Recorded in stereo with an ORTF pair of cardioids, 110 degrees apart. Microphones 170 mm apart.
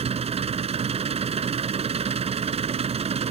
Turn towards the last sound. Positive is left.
turn(degrees=-35)